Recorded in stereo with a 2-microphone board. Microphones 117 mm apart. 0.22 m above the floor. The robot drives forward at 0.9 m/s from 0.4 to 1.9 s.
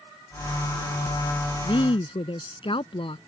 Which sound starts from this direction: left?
A woman speaking, at 1.6 s.